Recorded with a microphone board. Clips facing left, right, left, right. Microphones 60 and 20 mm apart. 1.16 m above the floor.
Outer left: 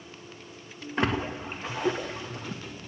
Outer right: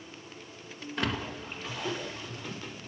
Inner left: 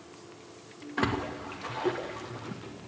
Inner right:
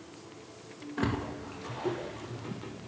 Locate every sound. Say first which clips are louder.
1.0 s a splash: outer left 5 dB, inner left 3 dB; 30° left (ahead or behind), 2 m